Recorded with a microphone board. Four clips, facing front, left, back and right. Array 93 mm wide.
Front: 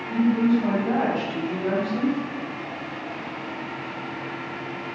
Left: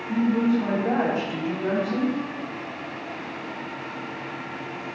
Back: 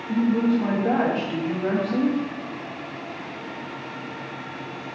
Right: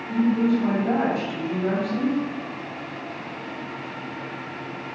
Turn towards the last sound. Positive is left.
turn(degrees=155)